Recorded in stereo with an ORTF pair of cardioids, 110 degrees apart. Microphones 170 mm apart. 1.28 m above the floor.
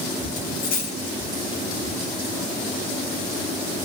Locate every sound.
0.4 s a dropped coin: 65° left, 5 m